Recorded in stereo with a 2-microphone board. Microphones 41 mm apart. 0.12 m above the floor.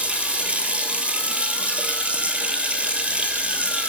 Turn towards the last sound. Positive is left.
turn(degrees=-30)  # may be behind; listen again after turning